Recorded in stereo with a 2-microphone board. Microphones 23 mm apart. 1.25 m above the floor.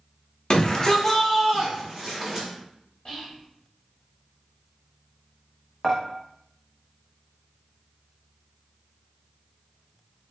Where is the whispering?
35° left (ahead or behind), 0.7 m.